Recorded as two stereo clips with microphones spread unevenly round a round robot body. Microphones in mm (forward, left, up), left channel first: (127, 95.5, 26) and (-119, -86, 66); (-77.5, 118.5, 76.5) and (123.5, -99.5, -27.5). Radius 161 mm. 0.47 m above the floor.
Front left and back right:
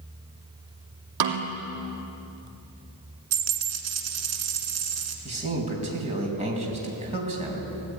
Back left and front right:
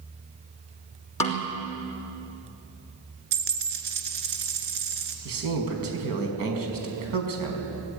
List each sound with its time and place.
1.2 s a snare drum: 150° right, 3.5 m
3.3 s a dropped coin: 105° right, 2 m
5.2 s a man speaking: 75° right, 4.5 m